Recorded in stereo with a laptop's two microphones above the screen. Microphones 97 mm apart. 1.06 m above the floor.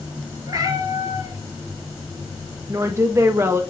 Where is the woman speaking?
25° right (ahead or behind), 0.6 m.